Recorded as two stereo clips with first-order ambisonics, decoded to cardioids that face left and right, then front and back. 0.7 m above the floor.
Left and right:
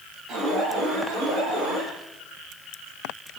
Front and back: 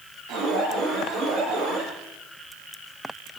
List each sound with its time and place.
0.3 s an alarm: 135° right, 8 m